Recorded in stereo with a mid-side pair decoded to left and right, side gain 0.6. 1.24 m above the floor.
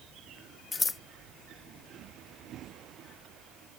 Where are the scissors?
30° left.